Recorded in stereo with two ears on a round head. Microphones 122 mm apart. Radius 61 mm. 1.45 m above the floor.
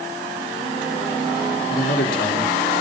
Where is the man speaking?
80° left, 5 m.